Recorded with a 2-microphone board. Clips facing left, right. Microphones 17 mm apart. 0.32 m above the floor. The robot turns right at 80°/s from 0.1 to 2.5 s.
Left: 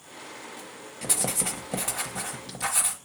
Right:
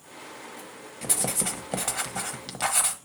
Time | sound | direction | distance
1.0 | writing | 165° left | 1.1 m